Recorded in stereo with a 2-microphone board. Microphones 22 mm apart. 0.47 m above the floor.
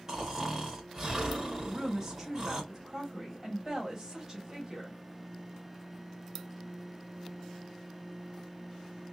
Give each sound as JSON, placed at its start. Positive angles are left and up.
{"t": 0.1, "sound": "snoring", "side_deg": -20, "distance_m": 2.5}
{"t": 1.6, "sound": "a woman speaking", "side_deg": -10, "distance_m": 2.5}